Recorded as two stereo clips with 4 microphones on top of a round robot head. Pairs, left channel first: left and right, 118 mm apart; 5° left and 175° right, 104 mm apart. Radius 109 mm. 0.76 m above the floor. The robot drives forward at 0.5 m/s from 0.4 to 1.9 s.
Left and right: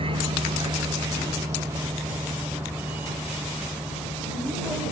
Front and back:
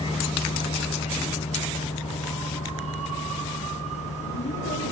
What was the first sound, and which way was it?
A vehicle, 45° right.